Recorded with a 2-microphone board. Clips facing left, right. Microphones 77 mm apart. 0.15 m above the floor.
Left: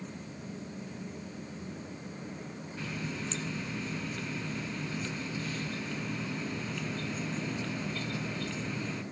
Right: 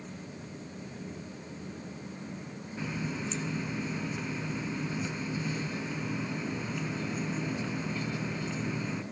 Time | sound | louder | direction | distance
2.8 | a running tap | right 3 dB | 15° right (ahead or behind) | 0.9 m